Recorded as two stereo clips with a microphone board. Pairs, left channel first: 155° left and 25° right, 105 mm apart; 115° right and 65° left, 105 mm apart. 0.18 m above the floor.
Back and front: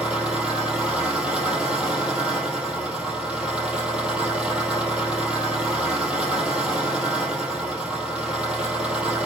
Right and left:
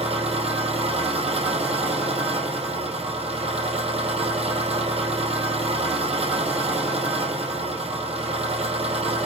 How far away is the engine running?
About 4 m.